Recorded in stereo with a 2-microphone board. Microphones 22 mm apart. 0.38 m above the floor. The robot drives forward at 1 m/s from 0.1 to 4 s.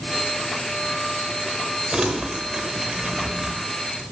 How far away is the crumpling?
About 1.9 m.